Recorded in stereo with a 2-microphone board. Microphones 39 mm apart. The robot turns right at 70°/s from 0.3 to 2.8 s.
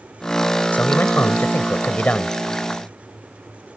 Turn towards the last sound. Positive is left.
turn(degrees=-175)